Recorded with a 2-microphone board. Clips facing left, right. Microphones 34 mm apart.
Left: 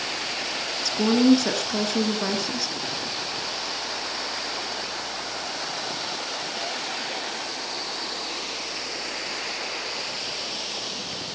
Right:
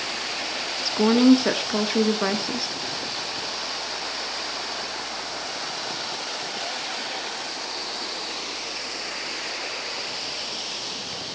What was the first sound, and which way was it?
A woman speaking, 20° right (ahead or behind).